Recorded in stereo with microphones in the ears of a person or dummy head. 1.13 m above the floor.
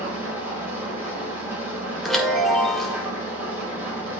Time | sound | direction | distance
0.0 | an engine running | 10° right (ahead or behind) | 5 m
2.0 | a chime | centre (ahead or behind) | 1.9 m